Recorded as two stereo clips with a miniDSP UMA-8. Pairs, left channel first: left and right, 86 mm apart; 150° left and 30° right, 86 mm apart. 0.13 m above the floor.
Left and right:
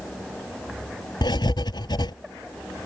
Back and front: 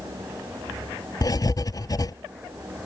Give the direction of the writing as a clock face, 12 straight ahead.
8 o'clock.